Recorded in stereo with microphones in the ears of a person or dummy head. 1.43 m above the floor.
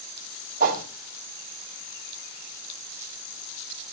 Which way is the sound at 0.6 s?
50° right (ahead or behind).